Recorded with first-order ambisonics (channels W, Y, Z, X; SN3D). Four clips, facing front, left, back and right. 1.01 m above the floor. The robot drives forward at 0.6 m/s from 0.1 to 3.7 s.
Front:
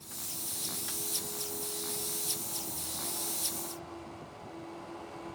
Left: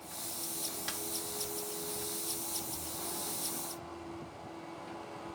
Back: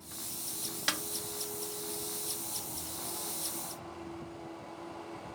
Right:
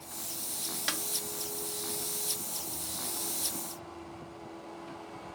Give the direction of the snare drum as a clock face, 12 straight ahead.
5 o'clock.